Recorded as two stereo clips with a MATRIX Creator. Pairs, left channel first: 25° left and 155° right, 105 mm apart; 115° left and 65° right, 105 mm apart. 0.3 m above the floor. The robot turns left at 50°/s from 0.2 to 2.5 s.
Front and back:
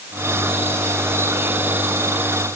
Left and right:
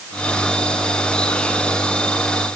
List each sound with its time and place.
Only background noise.